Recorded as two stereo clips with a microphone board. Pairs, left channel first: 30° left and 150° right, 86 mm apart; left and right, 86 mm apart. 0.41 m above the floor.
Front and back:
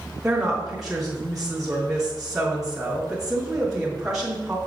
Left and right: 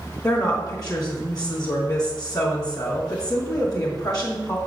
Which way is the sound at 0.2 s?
125° left.